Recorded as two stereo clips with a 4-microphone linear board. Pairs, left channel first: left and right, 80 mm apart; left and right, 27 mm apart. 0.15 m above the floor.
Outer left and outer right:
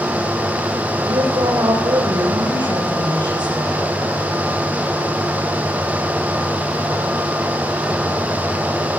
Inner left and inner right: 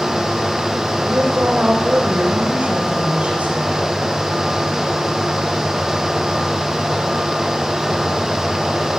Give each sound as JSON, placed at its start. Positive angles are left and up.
{"t": 1.1, "sound": "a woman speaking", "side_deg": -75, "distance_m": 6.0}